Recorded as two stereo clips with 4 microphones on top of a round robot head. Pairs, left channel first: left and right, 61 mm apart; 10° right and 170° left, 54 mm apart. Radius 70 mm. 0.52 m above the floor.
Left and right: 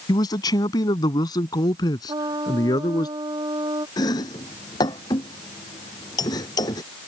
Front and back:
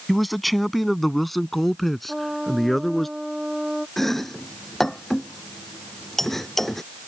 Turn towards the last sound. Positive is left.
turn(degrees=75)